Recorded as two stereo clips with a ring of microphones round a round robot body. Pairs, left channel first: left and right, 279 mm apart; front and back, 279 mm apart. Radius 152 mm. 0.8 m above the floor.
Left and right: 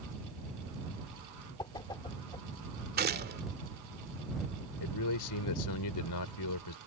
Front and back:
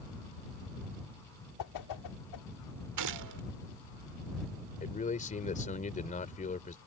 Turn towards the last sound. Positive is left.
turn(degrees=65)